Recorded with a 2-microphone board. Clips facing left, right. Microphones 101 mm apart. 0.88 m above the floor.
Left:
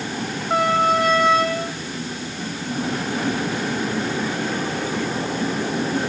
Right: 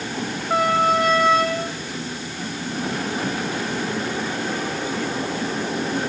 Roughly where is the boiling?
No boiling in this recording.